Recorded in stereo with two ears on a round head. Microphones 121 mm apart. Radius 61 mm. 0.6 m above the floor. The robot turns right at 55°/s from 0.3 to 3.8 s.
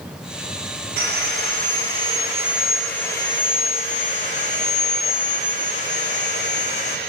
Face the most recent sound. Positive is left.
turn(degrees=60)